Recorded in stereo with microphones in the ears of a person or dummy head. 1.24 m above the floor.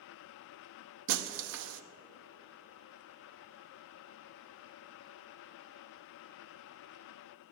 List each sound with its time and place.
1.1 s breaking glass: 75° right (ahead or behind), 1.0 m